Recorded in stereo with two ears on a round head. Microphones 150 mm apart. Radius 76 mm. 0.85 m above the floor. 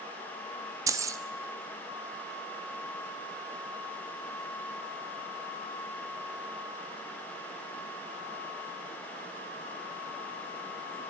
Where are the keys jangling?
20° right (ahead or behind), 1.0 m.